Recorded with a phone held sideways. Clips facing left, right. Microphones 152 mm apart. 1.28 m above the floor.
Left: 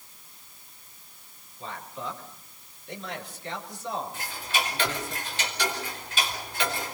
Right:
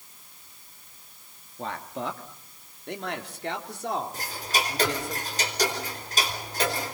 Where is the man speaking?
80° right, 3 m.